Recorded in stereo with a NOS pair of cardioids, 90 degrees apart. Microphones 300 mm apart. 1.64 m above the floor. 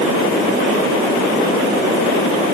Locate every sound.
Only background noise.